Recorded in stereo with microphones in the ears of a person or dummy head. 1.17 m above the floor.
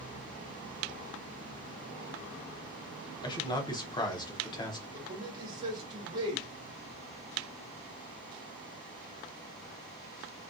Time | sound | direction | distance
3.2 | a man speaking | 25° left (ahead or behind) | 0.6 m
4.9 | a man speaking | 25° right (ahead or behind) | 1.2 m